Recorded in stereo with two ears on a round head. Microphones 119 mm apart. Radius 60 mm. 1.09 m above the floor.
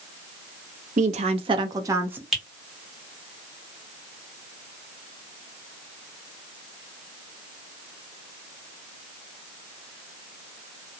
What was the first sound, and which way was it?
A woman speaking, 60° right (ahead or behind).